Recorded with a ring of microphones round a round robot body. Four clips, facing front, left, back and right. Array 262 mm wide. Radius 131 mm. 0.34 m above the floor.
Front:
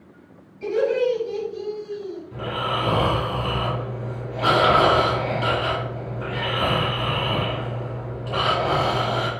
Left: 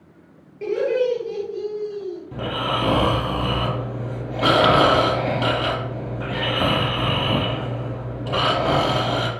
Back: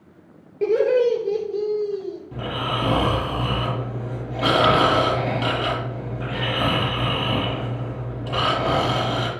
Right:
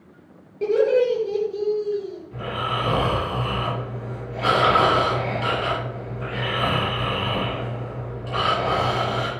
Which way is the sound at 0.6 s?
165° right.